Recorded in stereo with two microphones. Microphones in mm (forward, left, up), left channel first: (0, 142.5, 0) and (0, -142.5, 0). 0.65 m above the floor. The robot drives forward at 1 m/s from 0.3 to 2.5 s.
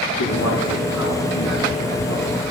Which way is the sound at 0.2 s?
70° left (ahead or behind).